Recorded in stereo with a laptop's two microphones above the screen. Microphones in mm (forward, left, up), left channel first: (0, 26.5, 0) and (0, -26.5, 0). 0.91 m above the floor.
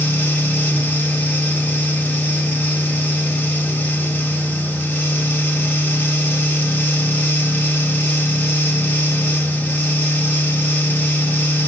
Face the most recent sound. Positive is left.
turn(degrees=30)  # may be behind; listen again after turning